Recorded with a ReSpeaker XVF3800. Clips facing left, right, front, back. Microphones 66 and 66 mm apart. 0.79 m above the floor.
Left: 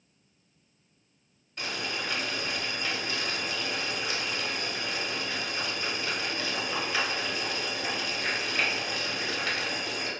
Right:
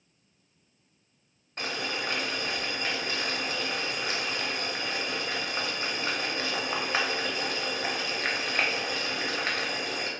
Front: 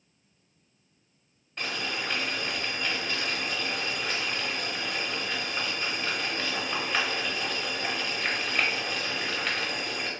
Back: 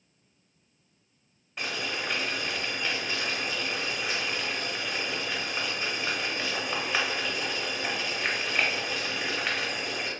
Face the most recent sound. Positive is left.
turn(degrees=-100)